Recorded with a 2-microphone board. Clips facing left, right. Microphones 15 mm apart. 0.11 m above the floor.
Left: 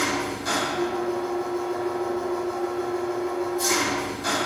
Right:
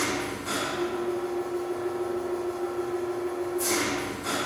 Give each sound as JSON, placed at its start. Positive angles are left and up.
{"t": 0.0, "sound": "an engine running", "side_deg": 60, "distance_m": 1.7}